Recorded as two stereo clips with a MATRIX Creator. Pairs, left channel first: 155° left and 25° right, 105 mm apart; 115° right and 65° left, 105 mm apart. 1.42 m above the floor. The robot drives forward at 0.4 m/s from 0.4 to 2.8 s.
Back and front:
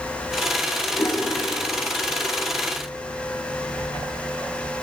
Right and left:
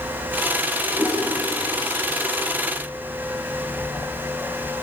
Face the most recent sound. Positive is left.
turn(degrees=125)